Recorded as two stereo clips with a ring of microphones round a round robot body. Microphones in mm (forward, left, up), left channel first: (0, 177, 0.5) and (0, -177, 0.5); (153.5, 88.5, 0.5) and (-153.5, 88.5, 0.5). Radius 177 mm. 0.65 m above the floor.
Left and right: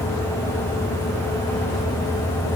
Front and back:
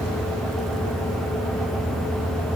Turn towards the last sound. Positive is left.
No sound to turn to.